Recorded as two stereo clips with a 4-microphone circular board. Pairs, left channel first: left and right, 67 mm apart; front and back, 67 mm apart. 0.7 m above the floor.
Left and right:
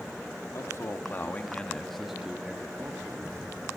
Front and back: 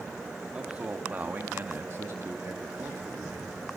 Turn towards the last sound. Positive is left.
turn(degrees=-130)